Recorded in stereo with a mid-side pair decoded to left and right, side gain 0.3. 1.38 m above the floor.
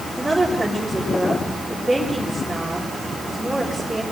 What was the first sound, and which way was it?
A woman speaking, 10° right.